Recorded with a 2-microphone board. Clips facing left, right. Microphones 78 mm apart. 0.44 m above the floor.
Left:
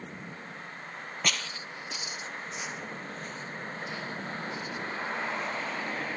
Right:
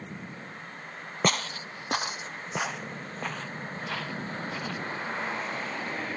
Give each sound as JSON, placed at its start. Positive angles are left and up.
{"t": 1.2, "sound": "footsteps", "side_deg": -35}